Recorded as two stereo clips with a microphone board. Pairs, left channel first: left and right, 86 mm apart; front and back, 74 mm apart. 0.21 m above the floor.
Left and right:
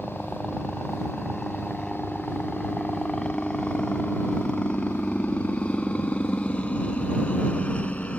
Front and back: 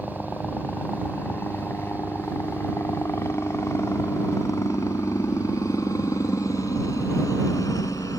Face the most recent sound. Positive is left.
turn(degrees=15)